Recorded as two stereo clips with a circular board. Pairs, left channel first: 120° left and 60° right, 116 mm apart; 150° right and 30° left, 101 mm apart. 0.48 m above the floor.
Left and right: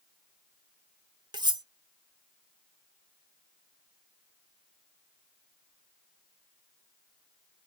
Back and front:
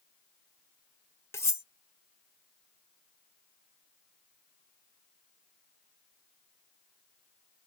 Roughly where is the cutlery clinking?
Right.